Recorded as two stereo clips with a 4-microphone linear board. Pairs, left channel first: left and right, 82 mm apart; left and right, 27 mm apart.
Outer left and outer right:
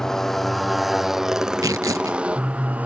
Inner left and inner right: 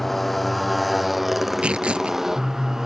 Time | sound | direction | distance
0.0 | a motorcycle | 5° left (ahead or behind) | ?
1.6 | tearing paper | 50° right (ahead or behind) | ?